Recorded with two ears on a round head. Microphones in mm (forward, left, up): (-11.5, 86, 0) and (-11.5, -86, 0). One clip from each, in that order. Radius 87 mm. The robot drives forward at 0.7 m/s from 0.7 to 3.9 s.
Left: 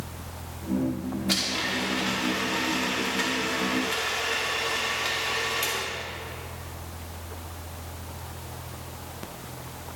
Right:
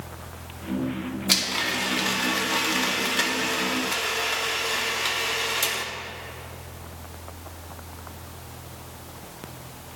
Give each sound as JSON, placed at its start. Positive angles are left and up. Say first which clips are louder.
{"t": 1.3, "sound": "a blender", "louder": "right 3 dB", "side_deg": -30, "distance_m": 1.4}